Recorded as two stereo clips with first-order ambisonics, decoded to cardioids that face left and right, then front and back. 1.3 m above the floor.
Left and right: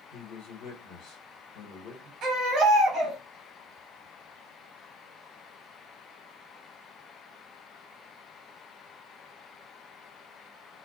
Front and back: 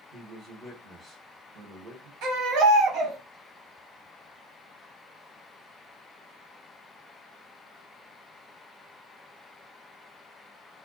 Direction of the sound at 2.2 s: 140° right.